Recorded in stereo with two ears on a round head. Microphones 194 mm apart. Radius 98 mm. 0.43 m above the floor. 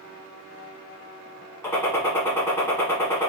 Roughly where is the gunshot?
Centre.